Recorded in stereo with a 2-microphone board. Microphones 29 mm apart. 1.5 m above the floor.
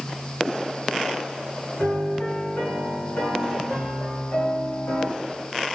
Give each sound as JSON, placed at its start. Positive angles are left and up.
{"t": 1.8, "sound": "a piano", "side_deg": 60, "distance_m": 4.0}